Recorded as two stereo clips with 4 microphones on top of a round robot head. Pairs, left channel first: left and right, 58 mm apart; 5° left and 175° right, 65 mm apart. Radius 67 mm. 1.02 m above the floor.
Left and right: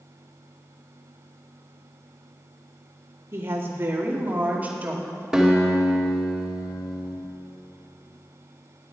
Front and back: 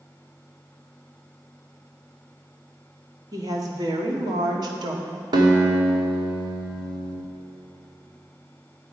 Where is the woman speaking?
135° right, 2 m; by 5.2 s 165° right, 2.5 m.